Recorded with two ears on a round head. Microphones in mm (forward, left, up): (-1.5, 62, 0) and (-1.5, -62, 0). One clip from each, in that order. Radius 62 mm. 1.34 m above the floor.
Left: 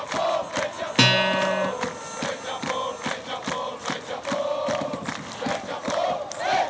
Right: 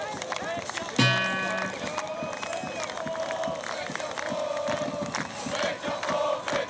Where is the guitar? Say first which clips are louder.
Left 6 dB; 70° left (ahead or behind), 0.7 m.